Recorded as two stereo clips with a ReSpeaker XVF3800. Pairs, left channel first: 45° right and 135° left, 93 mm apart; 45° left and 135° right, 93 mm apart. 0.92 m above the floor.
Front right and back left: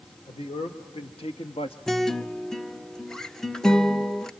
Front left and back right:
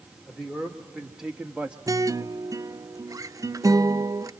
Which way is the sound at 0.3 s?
45° right.